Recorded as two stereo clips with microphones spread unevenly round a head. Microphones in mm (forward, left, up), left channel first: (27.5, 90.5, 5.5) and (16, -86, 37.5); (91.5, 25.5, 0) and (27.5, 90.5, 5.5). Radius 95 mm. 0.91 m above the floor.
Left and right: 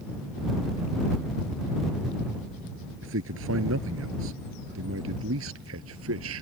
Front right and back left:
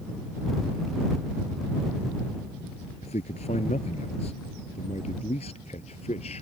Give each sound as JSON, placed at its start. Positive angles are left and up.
{"t": 3.0, "sound": "a man speaking", "azimuth_deg": -85}